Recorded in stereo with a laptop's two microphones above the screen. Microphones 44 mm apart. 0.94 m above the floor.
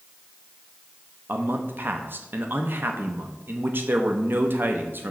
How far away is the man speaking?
About 0.6 m.